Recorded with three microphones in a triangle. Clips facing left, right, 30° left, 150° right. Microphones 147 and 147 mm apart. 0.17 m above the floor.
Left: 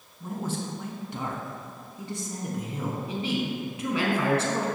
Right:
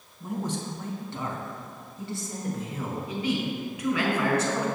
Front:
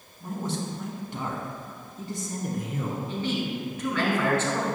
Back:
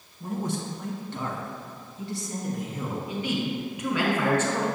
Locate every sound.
0.2 s a man speaking: 170° left, 1.2 m; by 3.0 s 20° left, 2 m
3.1 s a man speaking: 140° left, 1.5 m